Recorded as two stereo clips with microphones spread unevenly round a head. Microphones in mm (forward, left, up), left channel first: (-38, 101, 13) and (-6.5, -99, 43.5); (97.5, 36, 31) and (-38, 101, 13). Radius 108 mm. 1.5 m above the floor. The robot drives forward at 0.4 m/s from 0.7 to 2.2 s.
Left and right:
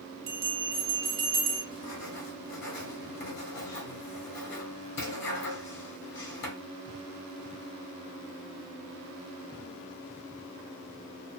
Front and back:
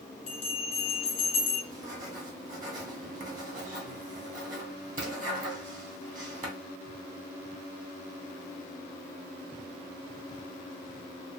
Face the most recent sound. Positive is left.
turn(degrees=130)